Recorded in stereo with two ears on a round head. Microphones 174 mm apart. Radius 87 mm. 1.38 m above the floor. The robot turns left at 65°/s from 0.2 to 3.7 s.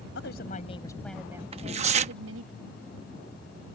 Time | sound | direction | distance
0.1 | a woman speaking | 60° left | ?
1.5 | tearing paper | 60° right | ?